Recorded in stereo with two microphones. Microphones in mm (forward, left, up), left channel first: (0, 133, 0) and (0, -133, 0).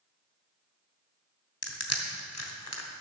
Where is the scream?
No scream in this recording.